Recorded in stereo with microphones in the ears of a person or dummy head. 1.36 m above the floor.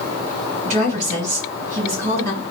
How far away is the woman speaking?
About 3 m.